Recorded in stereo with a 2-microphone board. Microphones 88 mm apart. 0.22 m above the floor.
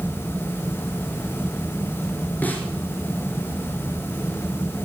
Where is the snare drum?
20° left (ahead or behind), 2.5 m.